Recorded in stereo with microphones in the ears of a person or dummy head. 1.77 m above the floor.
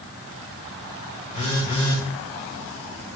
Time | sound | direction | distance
1.3 | a phone buzzing | 40° left (ahead or behind) | 2.5 m